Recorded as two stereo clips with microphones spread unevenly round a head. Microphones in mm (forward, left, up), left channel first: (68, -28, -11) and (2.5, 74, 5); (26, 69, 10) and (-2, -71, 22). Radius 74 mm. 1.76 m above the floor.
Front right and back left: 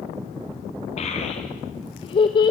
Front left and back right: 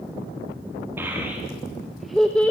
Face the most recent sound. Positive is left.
turn(degrees=0)